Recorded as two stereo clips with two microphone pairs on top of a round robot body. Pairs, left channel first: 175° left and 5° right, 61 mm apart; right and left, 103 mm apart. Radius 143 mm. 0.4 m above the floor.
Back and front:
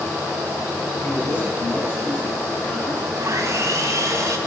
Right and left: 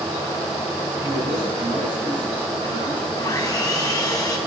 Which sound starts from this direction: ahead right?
Sawing, at 3.2 s.